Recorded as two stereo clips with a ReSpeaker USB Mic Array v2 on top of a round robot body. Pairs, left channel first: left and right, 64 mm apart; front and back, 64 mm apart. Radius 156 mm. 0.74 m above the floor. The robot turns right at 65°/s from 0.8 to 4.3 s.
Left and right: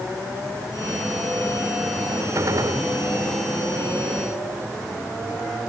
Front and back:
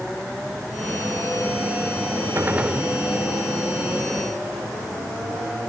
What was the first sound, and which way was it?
A gunshot, 130° right.